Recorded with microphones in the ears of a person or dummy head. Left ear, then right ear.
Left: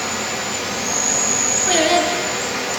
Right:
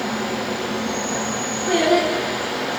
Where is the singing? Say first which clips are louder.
Even; 60° left (ahead or behind), 4 m.